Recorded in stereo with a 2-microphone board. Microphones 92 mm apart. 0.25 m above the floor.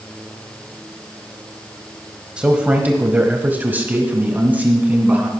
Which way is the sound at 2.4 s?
10° right (ahead or behind).